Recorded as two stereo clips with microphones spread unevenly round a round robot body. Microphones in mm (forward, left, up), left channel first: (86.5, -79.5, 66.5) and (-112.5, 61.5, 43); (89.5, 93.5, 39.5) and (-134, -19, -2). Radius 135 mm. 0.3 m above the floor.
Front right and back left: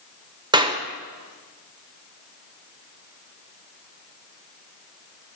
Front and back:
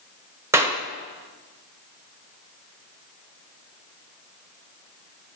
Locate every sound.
0.5 s a clap: 170° left, 1.2 m